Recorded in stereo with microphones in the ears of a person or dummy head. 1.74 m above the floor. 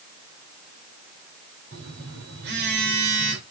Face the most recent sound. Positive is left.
turn(degrees=-60)  # may be behind; listen again after turning